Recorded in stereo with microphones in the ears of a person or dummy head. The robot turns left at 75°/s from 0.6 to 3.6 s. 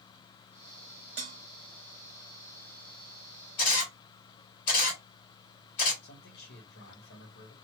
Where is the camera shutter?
50° left (ahead or behind), 1.5 m.